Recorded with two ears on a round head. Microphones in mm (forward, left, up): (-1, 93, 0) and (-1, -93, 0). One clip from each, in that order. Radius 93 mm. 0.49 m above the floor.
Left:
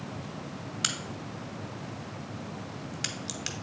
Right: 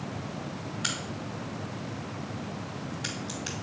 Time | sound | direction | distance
0.8 | a crack | 60° left (ahead or behind) | 0.9 m